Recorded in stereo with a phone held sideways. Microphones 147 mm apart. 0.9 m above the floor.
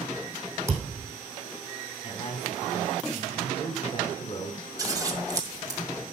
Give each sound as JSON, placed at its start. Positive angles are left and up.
{"t": 0.7, "sound": "a thud", "side_deg": -15, "distance_m": 3.0}
{"t": 2.0, "sound": "a man speaking", "side_deg": 35, "distance_m": 3.0}
{"t": 4.8, "sound": "scissors", "side_deg": -25, "distance_m": 1.9}